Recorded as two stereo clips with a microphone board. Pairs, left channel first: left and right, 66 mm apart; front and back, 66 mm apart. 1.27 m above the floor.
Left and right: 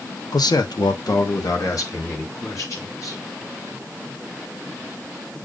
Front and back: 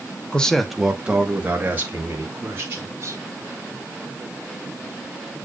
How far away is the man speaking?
About 1.2 m.